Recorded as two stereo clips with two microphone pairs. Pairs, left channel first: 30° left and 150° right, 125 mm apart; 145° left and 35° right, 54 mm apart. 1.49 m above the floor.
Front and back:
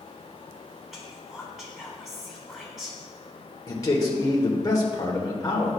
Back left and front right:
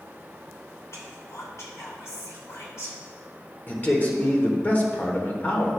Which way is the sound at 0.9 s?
120° left.